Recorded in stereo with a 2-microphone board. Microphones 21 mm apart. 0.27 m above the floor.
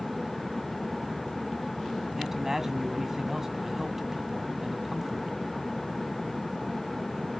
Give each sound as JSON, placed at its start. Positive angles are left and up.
{"t": 2.2, "sound": "a man speaking", "side_deg": -15, "distance_m": 2.5}